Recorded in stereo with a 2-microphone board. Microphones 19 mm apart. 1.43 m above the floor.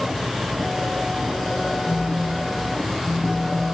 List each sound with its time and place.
1.9 s a phone buzzing: 65° left (ahead or behind), 4 m